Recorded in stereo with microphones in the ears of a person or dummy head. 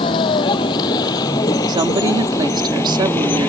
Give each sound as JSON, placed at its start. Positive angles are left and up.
{"t": 0.0, "sound": "a vehicle", "side_deg": 25}
{"t": 1.7, "sound": "a woman speaking", "side_deg": -25}